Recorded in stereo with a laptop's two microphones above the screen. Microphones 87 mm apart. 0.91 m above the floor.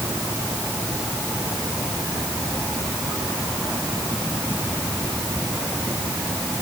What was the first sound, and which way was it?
Only background noise.